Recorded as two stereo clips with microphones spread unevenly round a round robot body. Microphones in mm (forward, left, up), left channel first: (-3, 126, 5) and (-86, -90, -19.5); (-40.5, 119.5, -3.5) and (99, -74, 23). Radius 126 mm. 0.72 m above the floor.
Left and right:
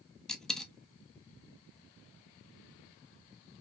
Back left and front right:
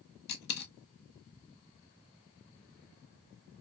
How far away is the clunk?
No clunk in this recording.